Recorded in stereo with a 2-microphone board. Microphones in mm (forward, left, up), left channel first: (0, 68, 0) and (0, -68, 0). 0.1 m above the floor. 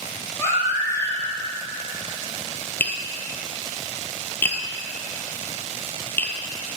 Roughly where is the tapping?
Centre.